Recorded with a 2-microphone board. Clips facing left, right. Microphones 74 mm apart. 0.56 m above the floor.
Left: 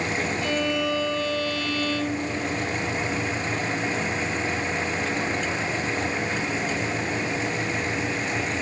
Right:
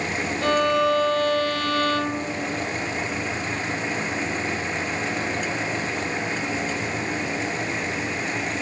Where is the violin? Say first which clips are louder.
Right 9 dB; 55° right (ahead or behind), 2 m.